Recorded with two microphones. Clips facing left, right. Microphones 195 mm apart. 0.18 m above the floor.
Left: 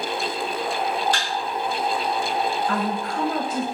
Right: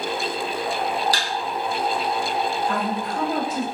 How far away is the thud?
About 1.7 m.